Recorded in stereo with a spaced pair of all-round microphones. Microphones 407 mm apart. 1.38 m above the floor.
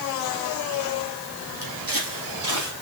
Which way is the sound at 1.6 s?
60° right (ahead or behind).